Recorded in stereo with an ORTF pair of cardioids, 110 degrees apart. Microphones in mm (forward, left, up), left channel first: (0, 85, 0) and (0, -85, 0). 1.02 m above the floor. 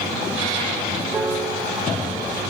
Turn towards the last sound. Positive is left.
turn(degrees=-10)